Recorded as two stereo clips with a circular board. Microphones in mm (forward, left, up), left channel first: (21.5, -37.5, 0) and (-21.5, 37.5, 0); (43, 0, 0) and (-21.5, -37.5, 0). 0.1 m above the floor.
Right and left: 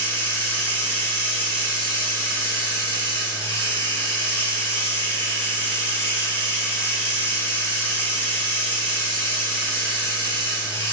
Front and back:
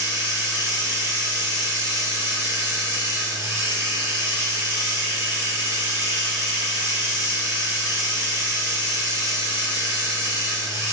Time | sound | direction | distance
0.0 | running water | 110° right | 1.2 m